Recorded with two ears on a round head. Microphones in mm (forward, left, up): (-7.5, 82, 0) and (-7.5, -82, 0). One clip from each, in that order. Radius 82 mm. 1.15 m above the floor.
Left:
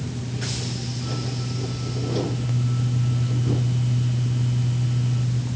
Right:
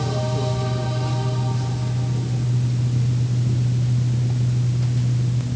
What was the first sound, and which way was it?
Only background noise.